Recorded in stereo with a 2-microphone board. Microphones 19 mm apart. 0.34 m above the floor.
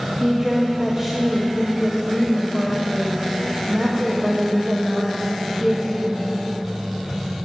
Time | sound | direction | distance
0.2 | a woman speaking | 30° right (ahead or behind) | 1.4 m